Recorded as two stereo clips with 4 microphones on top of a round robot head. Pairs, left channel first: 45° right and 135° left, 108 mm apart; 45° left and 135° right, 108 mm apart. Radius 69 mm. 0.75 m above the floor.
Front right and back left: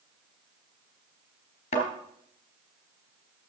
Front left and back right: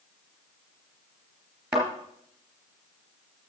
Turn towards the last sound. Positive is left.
turn(degrees=-55)